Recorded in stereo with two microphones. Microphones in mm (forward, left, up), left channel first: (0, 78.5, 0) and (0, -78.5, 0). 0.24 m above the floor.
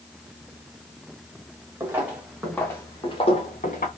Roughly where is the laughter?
No laughter in this recording.